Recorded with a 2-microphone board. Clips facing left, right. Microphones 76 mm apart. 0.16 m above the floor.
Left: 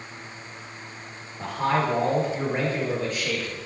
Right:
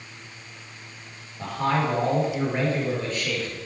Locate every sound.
1.4 s a man speaking: 10° left (ahead or behind), 4 m